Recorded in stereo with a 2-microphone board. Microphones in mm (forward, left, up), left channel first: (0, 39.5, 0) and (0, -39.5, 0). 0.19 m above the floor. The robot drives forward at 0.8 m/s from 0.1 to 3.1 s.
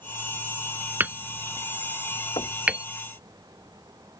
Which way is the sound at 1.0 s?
25° right (ahead or behind).